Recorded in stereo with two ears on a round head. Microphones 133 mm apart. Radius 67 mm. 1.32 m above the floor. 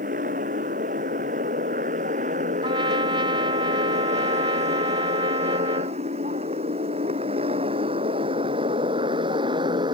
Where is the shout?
No shout in this recording.